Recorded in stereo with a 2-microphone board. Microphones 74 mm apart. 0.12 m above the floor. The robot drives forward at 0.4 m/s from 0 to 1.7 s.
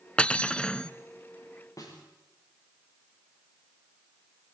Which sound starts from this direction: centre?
Cutlery clinking, at 0.2 s.